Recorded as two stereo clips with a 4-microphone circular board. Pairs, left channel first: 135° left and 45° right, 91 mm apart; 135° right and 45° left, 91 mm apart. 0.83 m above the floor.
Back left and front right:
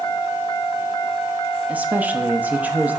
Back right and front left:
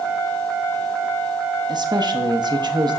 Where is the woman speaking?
25° left, 0.9 m.